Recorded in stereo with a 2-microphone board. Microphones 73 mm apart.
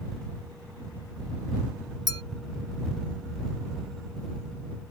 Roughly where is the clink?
Left.